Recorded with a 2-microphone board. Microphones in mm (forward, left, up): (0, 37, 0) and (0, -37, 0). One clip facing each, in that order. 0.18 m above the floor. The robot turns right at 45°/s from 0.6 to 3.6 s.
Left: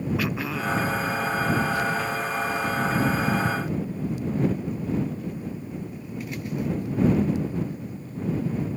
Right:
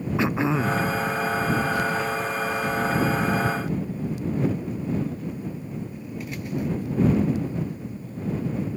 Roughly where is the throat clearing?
Right.